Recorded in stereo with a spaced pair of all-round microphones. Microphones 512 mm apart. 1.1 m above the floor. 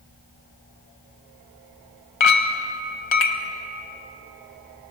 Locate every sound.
2.2 s a clink: 60° left (ahead or behind), 0.8 m